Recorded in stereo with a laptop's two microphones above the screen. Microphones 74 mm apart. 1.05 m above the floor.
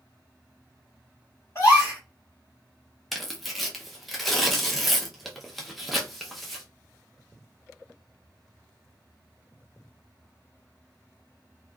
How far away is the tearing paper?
About 0.5 m.